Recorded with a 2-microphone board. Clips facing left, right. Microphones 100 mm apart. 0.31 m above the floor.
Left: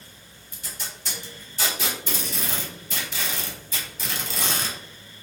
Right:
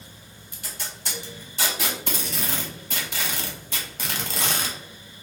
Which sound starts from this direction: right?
Tape being pulled, at 0.5 s.